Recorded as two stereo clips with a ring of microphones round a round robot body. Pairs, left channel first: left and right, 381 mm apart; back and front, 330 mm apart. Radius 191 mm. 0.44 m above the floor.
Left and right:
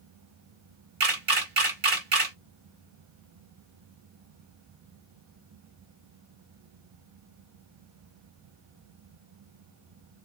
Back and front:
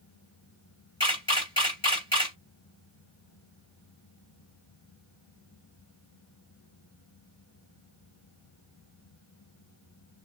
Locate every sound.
1.0 s a camera shutter: 115° right, 1.7 m